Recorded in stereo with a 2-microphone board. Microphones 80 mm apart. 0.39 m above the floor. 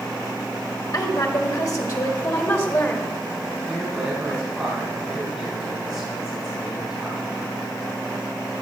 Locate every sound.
0.9 s a woman speaking: 50° left (ahead or behind), 1.9 m; by 3.1 s 25° left (ahead or behind), 1.6 m
3.7 s a man speaking: 5° right (ahead or behind), 3.5 m